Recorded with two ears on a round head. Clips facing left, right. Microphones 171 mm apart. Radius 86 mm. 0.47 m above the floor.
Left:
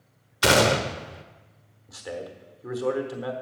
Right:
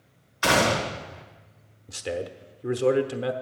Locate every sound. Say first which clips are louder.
0.4 s a gunshot: left 2 dB; 40° left (ahead or behind), 1.0 m
1.9 s a man speaking: right 4 dB; 30° right (ahead or behind), 1.0 m